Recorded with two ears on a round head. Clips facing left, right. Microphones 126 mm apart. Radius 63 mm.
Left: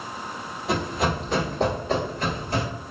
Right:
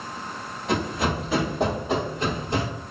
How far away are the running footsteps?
About 1.8 m.